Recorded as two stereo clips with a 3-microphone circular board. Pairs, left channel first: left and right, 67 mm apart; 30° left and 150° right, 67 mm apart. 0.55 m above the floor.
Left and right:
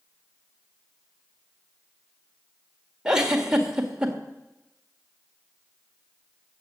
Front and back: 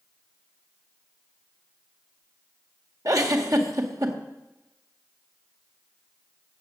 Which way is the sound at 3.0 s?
170° right.